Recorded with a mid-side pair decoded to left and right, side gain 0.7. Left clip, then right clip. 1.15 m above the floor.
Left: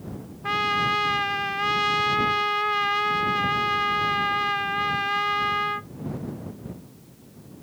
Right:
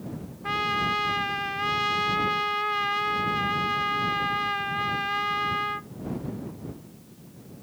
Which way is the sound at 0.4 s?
15° left.